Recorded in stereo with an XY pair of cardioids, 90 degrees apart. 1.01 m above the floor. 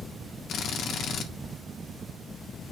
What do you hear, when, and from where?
0.5 s a drill: 70° left, 1.7 m